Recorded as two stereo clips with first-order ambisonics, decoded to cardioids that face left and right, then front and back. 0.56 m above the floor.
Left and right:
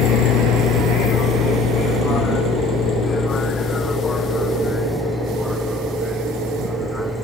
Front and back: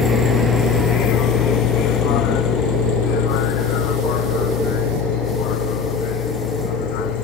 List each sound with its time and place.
0.0 s a vehicle: 55° left; by 7.2 s straight ahead